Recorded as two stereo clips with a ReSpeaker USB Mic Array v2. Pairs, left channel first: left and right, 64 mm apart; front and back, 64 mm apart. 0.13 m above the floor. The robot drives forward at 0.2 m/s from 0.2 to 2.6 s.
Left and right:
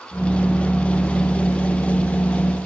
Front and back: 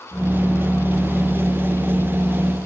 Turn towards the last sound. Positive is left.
No sound to turn to.